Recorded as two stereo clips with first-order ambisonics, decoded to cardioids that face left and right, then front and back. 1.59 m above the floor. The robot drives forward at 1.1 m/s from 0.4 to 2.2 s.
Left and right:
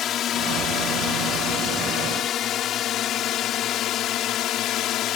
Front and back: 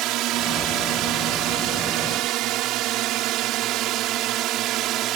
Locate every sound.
0.0 s a drone: 140° left; by 5.2 s 135° left